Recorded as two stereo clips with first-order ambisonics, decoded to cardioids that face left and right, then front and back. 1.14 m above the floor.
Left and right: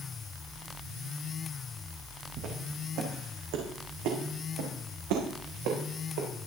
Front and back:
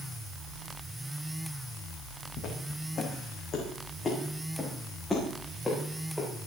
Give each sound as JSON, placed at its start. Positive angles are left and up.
{"t": 2.4, "sound": "footsteps", "azimuth_deg": -45, "distance_m": 4.5}